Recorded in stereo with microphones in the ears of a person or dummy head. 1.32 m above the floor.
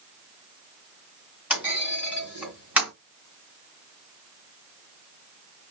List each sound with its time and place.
1.5 s a clunk: 10° right (ahead or behind), 2 m